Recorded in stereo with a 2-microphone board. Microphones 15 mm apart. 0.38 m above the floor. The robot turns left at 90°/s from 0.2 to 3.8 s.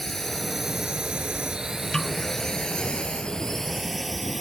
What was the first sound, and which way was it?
A drone, 20° left (ahead or behind).